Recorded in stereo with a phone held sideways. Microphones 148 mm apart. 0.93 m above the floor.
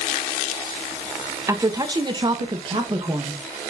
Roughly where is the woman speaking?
Right.